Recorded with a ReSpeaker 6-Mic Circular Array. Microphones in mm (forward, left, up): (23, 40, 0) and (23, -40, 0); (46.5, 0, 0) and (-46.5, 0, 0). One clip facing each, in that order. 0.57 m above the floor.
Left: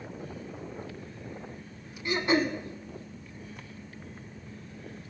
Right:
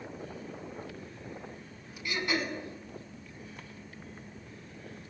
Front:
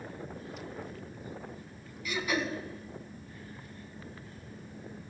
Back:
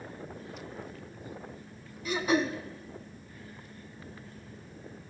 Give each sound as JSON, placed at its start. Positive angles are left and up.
{"t": 2.0, "sound": "throat clearing", "azimuth_deg": 135, "distance_m": 0.6}